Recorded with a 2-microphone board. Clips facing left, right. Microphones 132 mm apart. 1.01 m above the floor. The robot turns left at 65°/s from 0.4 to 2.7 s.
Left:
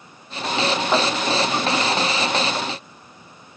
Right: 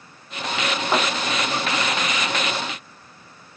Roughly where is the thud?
Centre.